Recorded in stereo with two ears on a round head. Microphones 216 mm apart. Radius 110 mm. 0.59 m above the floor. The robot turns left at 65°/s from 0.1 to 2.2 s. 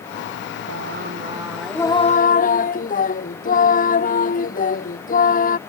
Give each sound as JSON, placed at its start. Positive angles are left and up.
{"t": 0.7, "sound": "singing", "azimuth_deg": -120}